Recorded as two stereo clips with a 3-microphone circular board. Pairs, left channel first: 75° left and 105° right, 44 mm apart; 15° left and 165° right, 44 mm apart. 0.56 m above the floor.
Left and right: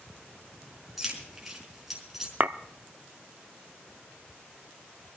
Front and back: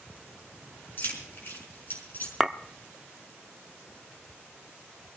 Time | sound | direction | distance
1.0 | keys jangling | 20° right | 4.5 m
2.4 | a clink | 80° right | 0.6 m